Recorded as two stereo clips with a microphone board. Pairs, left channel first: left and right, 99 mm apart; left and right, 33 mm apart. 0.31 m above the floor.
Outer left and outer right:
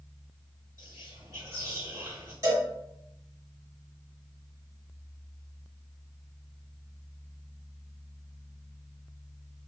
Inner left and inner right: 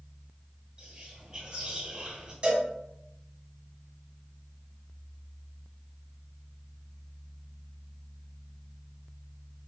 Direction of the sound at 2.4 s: 35° right (ahead or behind).